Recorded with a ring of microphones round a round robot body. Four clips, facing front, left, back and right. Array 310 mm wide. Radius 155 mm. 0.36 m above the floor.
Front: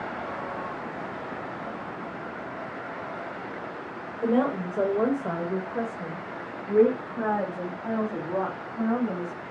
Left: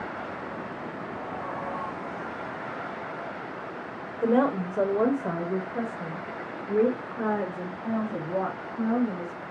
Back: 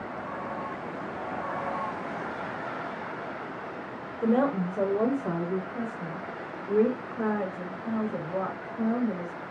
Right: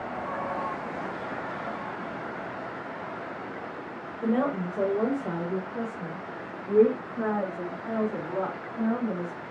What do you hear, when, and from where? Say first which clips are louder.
4.2 s a woman speaking: left 3 dB, even; 90° left, 1.3 m; by 9.4 s 10° right, 3.5 m